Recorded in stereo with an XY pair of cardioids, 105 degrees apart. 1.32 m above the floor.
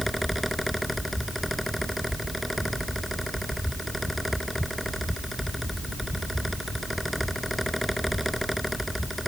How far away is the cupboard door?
No cupboard door in this recording.